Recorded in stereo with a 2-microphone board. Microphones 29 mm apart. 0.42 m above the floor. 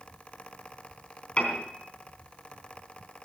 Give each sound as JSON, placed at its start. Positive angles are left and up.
{"t": 1.4, "sound": "a piano", "side_deg": 45, "distance_m": 3.5}